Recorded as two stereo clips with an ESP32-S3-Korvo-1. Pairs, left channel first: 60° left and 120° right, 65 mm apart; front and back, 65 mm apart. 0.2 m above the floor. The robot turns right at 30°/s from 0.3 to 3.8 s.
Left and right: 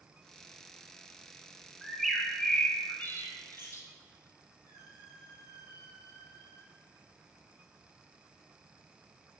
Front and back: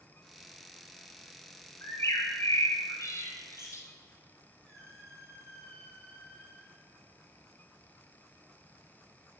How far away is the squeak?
About 2.5 m.